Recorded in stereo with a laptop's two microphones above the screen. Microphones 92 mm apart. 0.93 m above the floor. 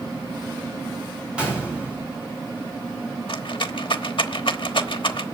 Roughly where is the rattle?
Left.